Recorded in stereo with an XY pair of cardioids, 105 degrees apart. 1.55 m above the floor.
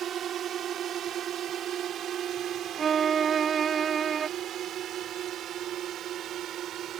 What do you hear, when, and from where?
0.0 s a drone: 65° right; by 7.0 s 70° right
2.8 s a violin: 50° right